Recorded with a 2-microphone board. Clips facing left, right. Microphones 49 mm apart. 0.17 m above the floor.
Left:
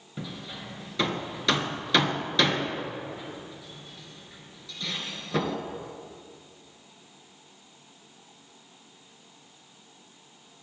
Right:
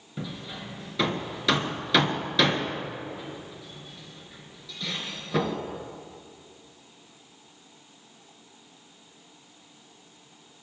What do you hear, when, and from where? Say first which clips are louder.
0.2 s hammering: right 2 dB; 5° right (ahead or behind), 2 m